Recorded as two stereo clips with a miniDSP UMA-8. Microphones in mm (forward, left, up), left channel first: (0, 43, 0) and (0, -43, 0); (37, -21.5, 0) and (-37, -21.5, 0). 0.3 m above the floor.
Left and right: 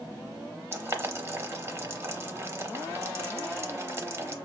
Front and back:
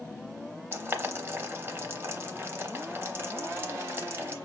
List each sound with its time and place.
0.7 s boiling: 135° right, 0.7 m